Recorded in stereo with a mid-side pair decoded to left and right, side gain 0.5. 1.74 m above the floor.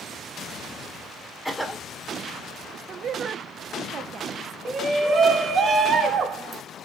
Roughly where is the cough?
Ahead.